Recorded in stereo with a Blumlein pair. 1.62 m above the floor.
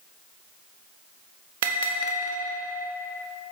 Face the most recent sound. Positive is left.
turn(degrees=-55)